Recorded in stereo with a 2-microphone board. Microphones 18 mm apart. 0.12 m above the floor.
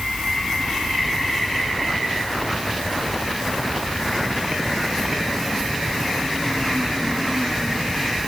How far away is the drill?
No drill in this recording.